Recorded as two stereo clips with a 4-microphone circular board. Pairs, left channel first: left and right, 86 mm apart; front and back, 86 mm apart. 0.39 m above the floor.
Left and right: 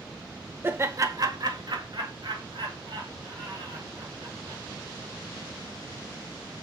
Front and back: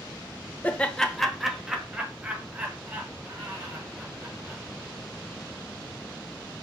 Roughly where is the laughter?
Ahead right.